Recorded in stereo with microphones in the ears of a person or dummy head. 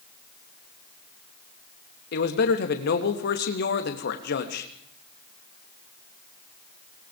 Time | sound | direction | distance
2.1 | a man speaking | 65° left (ahead or behind) | 3 m